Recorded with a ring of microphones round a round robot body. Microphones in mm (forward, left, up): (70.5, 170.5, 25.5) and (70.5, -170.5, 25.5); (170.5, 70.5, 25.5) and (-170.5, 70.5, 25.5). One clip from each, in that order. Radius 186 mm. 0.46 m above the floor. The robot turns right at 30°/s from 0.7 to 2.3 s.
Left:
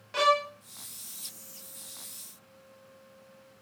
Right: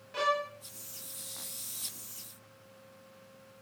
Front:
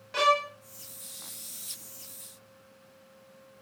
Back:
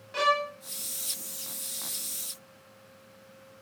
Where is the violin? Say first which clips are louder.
Left 6 dB, front 1 dB; 65° left, 1.1 m.